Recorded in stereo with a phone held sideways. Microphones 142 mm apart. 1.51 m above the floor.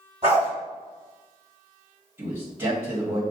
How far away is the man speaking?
About 1.6 m.